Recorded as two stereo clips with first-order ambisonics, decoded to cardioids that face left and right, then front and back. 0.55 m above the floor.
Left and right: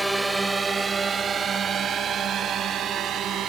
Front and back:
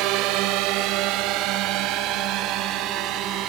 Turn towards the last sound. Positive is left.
turn(degrees=-140)